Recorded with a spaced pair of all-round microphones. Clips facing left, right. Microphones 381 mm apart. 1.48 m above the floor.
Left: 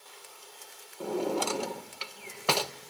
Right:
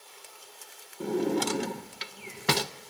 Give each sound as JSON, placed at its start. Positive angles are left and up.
{"t": 1.0, "sound": "a drawer", "side_deg": -30, "distance_m": 0.7}